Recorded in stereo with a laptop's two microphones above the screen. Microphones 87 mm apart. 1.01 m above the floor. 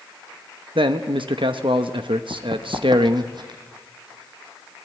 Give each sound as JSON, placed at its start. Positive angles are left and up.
{"t": 0.8, "sound": "a man speaking", "side_deg": -75, "distance_m": 1.0}
{"t": 2.3, "sound": "running footsteps", "side_deg": -50, "distance_m": 1.9}